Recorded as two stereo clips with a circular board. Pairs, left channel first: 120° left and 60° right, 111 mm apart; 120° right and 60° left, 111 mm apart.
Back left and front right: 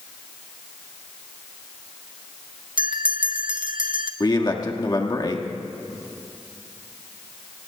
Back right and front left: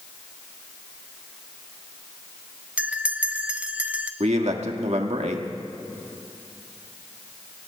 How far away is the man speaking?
About 1.6 m.